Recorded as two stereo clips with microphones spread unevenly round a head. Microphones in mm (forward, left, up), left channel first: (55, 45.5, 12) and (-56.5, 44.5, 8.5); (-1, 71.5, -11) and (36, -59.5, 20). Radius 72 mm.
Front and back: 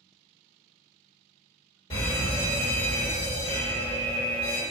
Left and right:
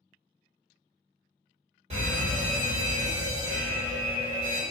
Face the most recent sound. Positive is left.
turn(degrees=-35)